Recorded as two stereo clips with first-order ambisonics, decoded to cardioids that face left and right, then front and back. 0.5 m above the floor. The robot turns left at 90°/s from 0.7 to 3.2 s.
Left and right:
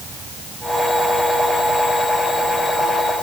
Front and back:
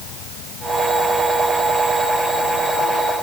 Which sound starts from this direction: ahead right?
An insect, at 0.0 s.